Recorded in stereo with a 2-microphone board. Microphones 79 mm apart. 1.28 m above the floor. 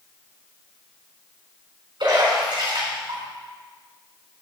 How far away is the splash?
About 5 m.